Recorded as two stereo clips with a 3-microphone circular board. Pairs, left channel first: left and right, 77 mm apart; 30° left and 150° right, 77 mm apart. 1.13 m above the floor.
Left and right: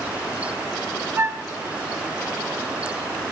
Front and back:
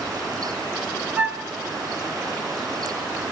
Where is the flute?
110° right, 0.7 m.